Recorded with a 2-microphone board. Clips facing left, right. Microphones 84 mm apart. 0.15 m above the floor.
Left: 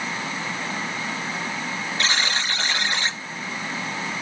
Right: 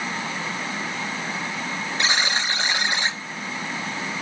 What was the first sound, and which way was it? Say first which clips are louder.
A buzzer: right 1 dB; 20° right (ahead or behind).